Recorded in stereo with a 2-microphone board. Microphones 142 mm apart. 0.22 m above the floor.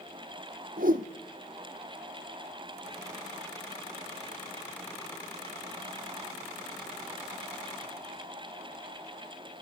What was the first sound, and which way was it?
A whoosh, 80° right.